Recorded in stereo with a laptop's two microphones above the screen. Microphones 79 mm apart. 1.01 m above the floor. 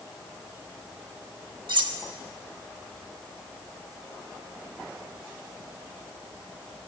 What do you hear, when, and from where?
1.7 s cutlery clinking: 70° right (ahead or behind), 1.1 m